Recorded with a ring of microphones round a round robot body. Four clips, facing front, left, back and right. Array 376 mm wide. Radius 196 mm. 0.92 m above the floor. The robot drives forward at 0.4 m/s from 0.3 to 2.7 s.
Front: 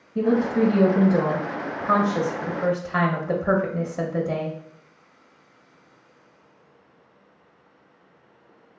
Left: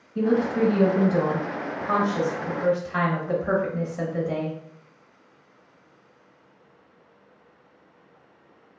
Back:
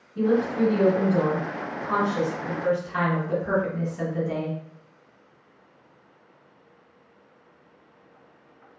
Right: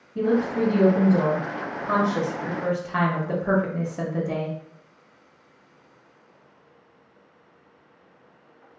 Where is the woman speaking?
10° right, 1.7 m; by 4.6 s 25° right, 0.9 m.